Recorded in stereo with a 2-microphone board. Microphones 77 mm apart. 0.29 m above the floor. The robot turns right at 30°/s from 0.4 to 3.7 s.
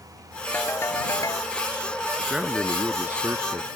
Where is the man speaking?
Straight behind; by 3.8 s 135° right.